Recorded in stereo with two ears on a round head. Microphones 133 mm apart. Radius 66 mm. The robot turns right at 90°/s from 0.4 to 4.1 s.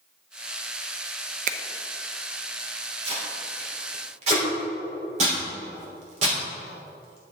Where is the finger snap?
55° right (ahead or behind), 0.5 m; by 1.6 s 50° right (ahead or behind), 0.5 m.